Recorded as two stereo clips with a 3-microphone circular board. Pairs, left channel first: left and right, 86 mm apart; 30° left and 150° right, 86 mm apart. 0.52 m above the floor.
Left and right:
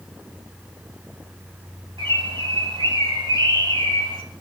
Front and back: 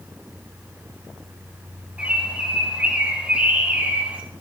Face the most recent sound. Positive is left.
turn(degrees=-75)